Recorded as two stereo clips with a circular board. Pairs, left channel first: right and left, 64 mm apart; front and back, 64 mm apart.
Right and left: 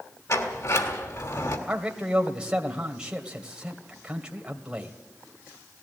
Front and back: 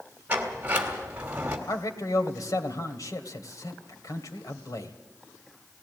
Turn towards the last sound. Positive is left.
turn(degrees=20)